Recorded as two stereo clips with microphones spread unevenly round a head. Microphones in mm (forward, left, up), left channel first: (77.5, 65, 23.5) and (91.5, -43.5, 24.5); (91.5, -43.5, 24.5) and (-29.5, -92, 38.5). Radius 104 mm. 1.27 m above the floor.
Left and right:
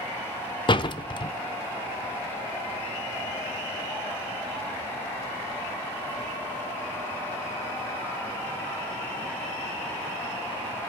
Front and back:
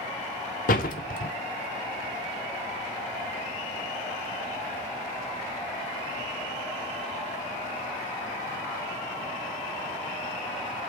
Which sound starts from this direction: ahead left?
A door slam, at 0.7 s.